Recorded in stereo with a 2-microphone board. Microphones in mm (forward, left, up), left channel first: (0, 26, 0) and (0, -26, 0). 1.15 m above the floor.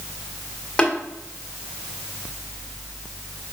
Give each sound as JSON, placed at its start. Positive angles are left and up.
{"t": 0.8, "sound": "tapping", "side_deg": 15, "distance_m": 1.6}